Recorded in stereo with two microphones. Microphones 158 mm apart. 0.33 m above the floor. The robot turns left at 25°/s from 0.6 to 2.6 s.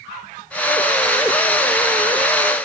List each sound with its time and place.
Only background noise.